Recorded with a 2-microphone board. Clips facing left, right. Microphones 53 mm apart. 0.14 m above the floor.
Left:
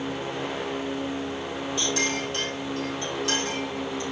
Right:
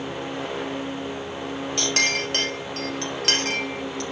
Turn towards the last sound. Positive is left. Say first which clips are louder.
# right 4 dB
turn(degrees=-65)  # may be behind; listen again after turning